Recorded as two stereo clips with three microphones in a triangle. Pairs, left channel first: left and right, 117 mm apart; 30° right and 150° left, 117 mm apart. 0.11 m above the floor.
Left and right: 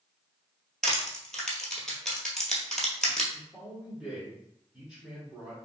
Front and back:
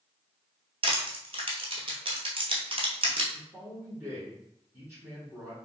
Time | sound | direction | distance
0.8 | crushing | 175° left | 0.9 m
3.3 | a man speaking | 170° right | 1.4 m